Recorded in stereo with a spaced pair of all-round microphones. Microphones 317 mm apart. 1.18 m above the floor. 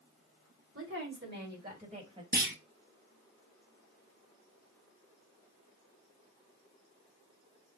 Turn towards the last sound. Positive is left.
turn(degrees=-30)  # may be behind; listen again after turning